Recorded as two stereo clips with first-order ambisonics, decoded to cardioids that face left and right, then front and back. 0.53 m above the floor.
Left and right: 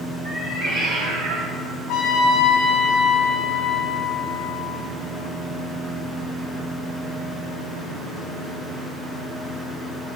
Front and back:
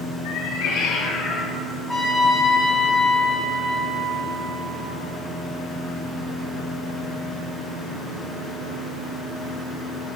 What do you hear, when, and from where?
0.2 s a cat meowing: 20° right, 2.0 m; by 1.5 s 90° right, 0.7 m
1.9 s a trumpet: 75° left, 1.2 m